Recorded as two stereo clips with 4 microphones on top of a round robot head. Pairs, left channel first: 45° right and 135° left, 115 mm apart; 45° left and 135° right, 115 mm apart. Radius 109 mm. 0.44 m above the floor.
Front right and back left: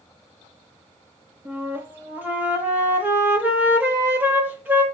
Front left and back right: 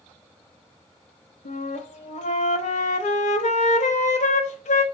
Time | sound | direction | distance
1.4 | a flute | 60° left | 0.6 m